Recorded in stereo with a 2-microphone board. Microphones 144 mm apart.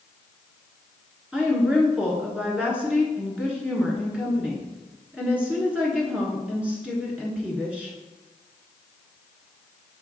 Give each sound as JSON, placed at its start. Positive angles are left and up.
{"t": 1.3, "sound": "a woman speaking", "side_deg": -10, "distance_m": 1.3}